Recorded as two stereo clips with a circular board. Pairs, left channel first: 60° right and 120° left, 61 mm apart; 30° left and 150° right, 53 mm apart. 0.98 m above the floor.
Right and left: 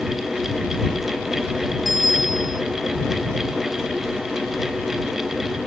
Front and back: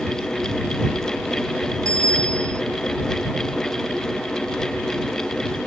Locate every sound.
1.9 s a bicycle bell: 150° right